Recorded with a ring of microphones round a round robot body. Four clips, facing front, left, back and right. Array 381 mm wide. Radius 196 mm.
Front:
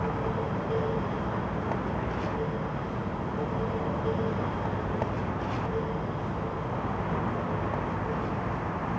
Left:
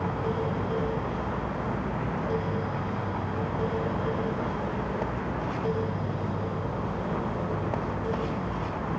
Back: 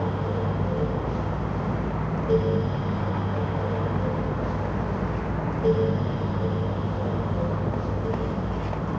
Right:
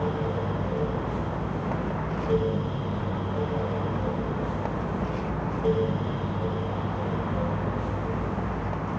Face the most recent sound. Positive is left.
No sound to turn to.